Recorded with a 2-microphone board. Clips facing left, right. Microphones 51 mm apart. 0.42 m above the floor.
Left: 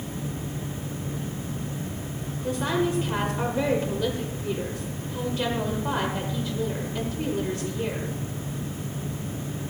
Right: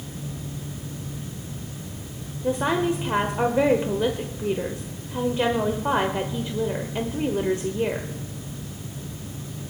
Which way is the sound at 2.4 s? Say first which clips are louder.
Right 3 dB; 30° right (ahead or behind).